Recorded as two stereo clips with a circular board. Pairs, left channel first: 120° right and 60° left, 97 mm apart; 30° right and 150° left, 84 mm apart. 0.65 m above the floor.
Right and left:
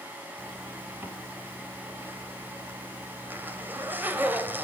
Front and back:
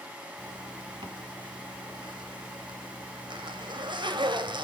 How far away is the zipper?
About 3 m.